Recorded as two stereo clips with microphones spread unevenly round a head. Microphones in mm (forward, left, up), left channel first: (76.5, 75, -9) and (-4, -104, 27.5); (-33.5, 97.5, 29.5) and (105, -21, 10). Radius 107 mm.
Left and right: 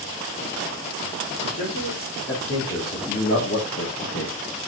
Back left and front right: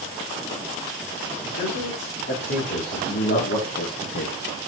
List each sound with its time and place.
1.4 s a man speaking: 110° left, 4.5 m